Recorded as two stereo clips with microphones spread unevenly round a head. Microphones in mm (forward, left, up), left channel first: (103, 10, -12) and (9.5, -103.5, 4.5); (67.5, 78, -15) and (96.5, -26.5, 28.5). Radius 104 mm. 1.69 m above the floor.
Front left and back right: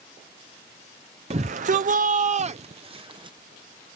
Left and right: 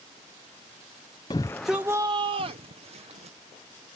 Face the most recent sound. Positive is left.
turn(degrees=-75)